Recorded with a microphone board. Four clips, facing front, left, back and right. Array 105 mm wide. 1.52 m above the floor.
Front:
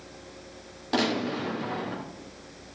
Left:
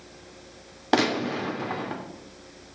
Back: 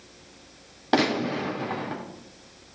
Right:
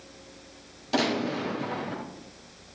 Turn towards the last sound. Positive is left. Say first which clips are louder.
# left 3 dB, back 3 dB
turn(degrees=125)